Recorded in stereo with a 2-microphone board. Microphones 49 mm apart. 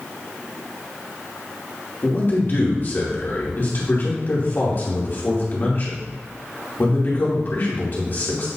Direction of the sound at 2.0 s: 45° left (ahead or behind).